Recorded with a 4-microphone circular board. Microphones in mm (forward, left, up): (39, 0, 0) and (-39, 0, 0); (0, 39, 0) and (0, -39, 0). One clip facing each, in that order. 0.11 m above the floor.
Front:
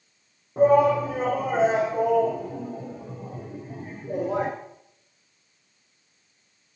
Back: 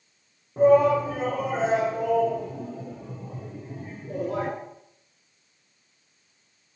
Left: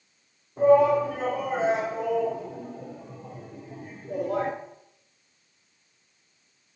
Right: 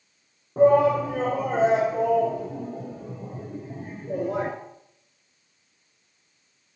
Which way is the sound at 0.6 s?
70° right.